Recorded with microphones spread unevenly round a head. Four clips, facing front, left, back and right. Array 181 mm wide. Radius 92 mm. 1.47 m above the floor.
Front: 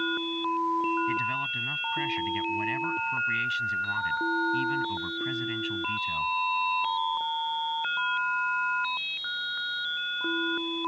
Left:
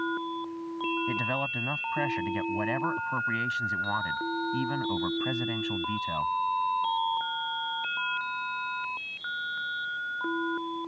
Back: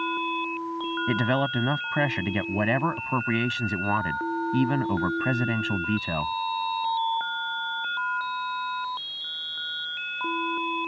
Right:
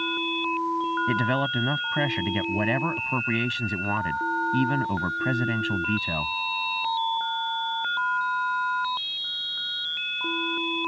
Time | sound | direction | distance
1.1 | a man speaking | 155° right | ?